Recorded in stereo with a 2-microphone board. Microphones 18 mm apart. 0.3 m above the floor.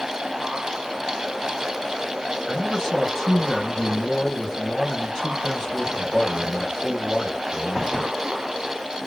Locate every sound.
2.5 s a man speaking: 20° left (ahead or behind), 1.6 m